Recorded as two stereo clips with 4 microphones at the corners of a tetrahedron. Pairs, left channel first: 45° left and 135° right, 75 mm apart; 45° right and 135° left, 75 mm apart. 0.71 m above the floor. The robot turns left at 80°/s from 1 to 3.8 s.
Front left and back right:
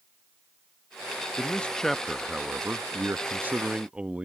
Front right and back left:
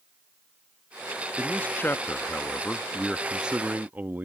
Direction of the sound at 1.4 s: Straight ahead.